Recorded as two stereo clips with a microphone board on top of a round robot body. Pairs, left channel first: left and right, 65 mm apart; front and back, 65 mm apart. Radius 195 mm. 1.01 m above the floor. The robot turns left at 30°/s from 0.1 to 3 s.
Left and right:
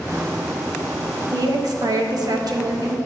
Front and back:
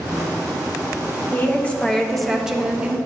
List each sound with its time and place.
1.3 s a woman speaking: 60° right, 1.1 m; by 3.0 s 110° right, 1.1 m